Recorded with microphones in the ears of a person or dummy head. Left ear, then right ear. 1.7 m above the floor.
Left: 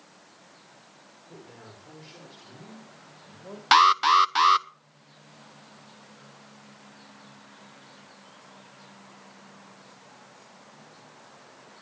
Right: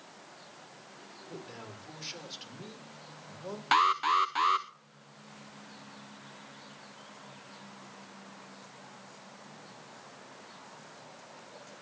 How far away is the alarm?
About 0.8 m.